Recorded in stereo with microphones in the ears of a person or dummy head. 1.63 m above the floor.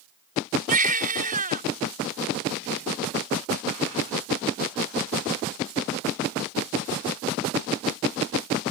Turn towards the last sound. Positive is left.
turn(degrees=-40)  # may be behind; listen again after turning